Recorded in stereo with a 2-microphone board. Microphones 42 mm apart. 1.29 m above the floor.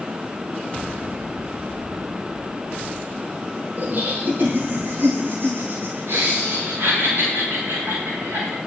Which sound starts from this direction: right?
Laughter, at 3.8 s.